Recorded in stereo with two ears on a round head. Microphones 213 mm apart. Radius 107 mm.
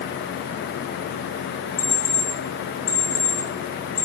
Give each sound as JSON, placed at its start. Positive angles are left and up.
{"t": 1.8, "sound": "an alarm clock", "side_deg": 25, "distance_m": 5.5}